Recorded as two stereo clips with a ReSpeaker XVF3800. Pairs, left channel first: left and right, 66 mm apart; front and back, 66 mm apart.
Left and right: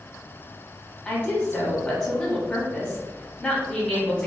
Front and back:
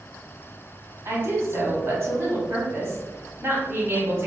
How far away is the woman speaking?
About 1.3 m.